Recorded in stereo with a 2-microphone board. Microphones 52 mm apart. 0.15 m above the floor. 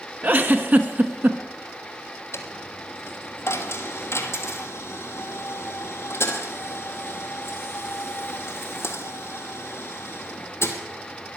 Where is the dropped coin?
60° left (ahead or behind), 1.4 m.